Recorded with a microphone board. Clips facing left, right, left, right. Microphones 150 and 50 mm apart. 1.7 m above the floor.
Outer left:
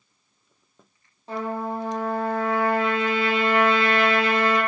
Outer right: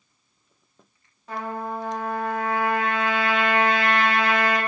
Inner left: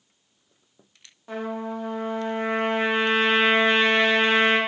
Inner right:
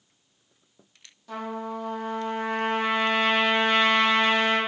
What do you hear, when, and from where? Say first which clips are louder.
1.3 s a trumpet: outer left 2 dB, inner left 2 dB; 30° left (ahead or behind), 0.9 m